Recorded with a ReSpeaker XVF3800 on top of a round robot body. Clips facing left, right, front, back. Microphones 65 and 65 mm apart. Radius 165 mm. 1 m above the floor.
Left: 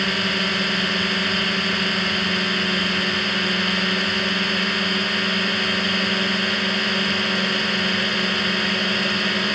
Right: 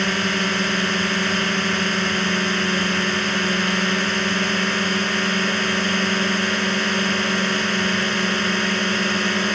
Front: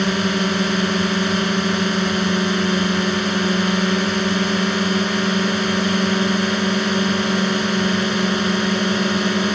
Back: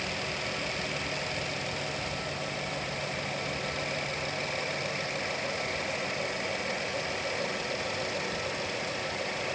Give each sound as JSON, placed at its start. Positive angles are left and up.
{"t": 0.0, "sound": "a drone", "azimuth_deg": -10}